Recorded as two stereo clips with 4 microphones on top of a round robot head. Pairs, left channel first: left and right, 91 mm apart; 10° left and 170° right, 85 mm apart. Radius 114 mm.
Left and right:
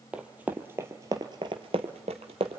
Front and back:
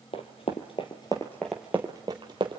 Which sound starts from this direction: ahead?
Running footsteps, at 0.1 s.